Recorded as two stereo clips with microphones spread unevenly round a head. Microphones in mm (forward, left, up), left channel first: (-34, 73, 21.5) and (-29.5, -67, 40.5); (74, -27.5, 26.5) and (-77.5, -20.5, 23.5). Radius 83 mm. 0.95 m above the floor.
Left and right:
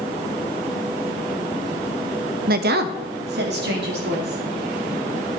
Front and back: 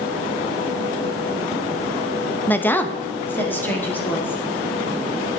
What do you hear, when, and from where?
2.5 s a woman speaking: 80° right, 0.5 m